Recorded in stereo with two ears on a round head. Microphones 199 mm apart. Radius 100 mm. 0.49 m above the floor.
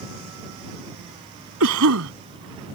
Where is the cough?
70° right (ahead or behind).